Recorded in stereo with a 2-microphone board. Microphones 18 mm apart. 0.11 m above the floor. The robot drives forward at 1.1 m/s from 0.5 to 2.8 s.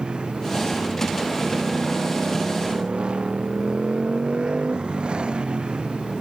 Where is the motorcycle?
55° right (ahead or behind); by 6.2 s 60° right (ahead or behind).